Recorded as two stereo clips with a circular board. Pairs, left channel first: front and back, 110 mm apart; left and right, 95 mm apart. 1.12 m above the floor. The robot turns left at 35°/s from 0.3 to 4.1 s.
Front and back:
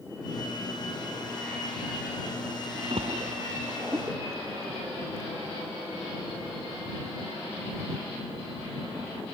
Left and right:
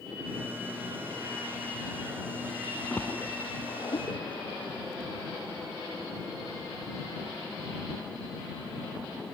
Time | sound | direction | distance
2.9 | a splash | 155° left | ?